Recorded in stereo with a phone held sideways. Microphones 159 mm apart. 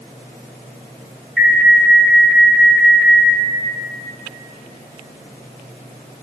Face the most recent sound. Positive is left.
turn(degrees=0)  # may be behind; listen again after turning